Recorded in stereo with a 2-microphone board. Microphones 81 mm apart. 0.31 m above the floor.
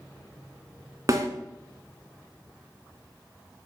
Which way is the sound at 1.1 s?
50° right (ahead or behind).